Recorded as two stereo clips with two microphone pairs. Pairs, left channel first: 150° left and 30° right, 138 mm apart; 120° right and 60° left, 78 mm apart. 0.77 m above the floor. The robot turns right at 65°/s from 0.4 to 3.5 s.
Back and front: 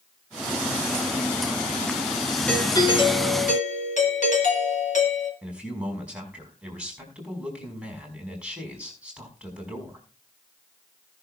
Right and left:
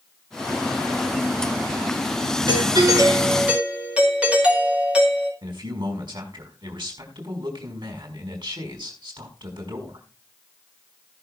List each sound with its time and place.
2.5 s a doorbell: 65° left, 4.5 m; by 5.3 s 135° left, 4.5 m
5.4 s a man speaking: 50° left, 5 m